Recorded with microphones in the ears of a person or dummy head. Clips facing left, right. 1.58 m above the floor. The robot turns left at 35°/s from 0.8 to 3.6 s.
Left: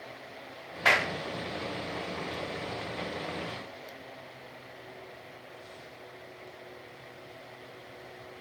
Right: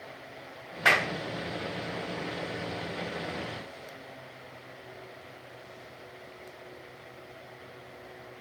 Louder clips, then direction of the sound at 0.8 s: Even; centre (ahead or behind).